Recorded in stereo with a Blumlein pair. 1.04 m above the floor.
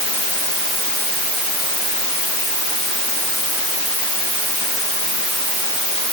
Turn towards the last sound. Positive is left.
No sound to turn to.